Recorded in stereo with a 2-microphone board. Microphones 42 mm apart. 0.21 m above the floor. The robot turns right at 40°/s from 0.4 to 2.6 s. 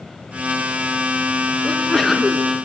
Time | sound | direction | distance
1.6 | a sneeze | 155° left | 3 m